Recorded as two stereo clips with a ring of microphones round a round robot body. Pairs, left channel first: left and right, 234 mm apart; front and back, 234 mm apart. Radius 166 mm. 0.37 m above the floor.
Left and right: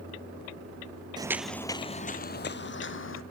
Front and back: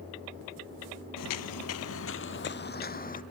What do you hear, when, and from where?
1.2 s footsteps: 15° right, 0.7 m; by 3.2 s 55° left, 1.4 m